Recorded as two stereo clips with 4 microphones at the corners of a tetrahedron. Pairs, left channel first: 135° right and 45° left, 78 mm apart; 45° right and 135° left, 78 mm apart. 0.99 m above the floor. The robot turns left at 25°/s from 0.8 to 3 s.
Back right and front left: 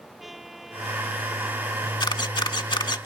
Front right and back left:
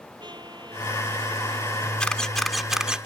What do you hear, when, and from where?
0.2 s a trumpet: 130° left; by 3.0 s 75° left
2.0 s a camera shutter: 120° right; by 3.1 s 145° right